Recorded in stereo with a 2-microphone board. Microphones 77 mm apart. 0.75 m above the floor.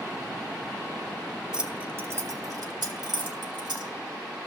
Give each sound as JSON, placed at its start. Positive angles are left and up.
{"t": 1.5, "sound": "keys jangling", "side_deg": -10, "distance_m": 0.7}